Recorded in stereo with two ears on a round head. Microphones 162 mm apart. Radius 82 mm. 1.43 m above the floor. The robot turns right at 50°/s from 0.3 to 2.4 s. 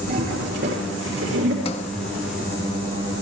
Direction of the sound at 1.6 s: 30° left (ahead or behind).